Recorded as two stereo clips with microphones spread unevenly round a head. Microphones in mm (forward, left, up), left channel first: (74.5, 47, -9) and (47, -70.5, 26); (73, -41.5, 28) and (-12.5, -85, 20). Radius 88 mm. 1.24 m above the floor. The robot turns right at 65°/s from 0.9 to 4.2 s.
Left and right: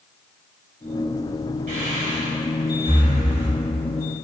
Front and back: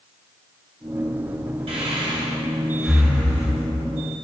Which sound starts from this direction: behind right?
Breathing, at 1.7 s.